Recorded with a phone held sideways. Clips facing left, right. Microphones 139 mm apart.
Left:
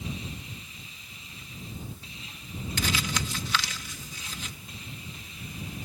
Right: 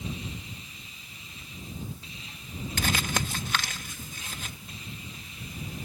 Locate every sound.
2.8 s crumpling: 45° right (ahead or behind)